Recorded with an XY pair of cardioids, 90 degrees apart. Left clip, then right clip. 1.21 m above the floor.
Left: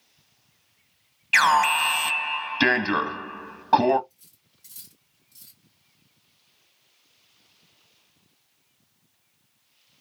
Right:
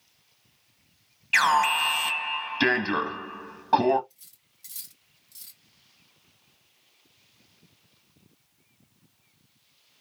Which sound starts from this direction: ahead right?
Cutlery clinking, at 4.1 s.